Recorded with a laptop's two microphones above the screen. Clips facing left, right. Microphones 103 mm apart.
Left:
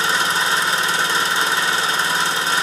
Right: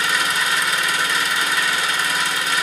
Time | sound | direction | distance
0.0 | an engine running | 30° left (ahead or behind) | 0.7 m